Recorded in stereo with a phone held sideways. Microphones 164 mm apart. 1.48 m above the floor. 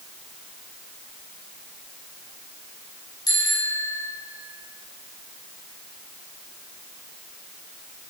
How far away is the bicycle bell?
About 7 m.